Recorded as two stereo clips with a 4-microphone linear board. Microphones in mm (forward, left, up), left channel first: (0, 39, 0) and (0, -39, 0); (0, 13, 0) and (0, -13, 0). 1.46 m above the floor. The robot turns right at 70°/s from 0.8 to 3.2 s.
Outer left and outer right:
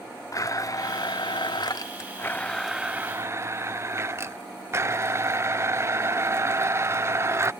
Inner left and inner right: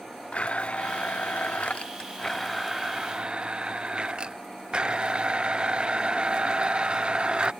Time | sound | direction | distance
0.3 | a blender | 50° left | ?